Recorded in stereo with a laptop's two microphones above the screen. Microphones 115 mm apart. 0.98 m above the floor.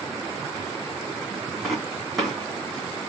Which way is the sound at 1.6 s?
Centre (ahead or behind).